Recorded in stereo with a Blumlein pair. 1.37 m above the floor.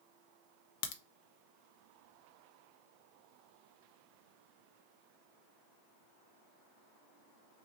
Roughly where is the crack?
Ahead left.